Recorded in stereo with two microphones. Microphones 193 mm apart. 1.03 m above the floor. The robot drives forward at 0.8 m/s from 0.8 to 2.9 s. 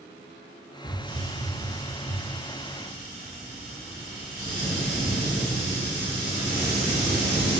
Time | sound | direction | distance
0.8 | a hiss | 30° left (ahead or behind) | 0.5 m